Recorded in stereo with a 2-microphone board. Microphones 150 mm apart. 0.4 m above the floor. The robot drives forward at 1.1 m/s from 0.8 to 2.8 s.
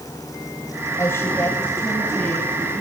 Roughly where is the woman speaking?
Centre.